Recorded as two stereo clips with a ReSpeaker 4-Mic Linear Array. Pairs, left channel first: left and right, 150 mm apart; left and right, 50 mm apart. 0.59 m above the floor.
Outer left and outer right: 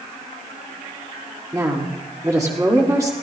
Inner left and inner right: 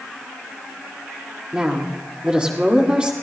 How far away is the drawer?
No drawer in this recording.